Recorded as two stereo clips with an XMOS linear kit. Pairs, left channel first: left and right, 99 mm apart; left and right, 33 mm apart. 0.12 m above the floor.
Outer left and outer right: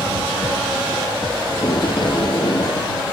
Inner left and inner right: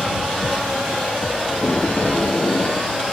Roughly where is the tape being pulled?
Left.